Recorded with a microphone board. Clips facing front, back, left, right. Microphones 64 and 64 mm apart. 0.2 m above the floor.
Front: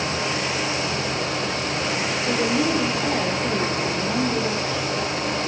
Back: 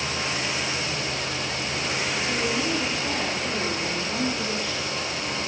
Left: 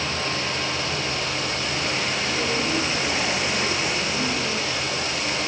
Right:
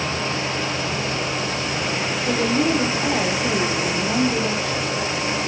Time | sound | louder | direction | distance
2.3 | a woman speaking | front 7 dB, right 8 dB | 55° right | 7.5 m